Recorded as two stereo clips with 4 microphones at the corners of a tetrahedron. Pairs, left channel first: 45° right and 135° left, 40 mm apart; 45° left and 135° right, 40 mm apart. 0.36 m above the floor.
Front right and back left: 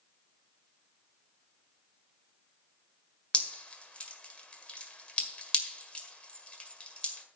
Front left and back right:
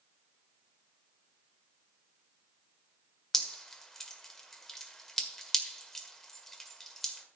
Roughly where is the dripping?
Ahead right.